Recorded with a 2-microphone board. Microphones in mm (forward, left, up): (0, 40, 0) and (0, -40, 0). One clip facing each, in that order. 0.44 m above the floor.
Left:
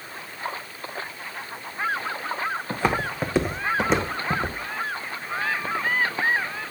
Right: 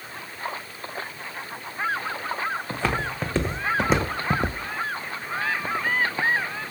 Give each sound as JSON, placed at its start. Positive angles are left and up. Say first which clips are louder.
{"t": 2.7, "sound": "footsteps", "louder": "left 2 dB", "side_deg": 15, "distance_m": 2.5}